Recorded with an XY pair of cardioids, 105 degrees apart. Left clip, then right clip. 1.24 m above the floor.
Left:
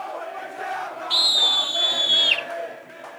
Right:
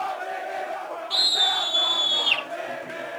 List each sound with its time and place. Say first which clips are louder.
1.1 s a scream: left 3 dB; 45° left, 5 m; by 2.4 s 40° left, 6 m